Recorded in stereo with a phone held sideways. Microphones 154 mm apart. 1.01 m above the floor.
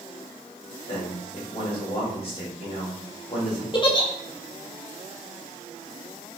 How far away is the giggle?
About 1.4 m.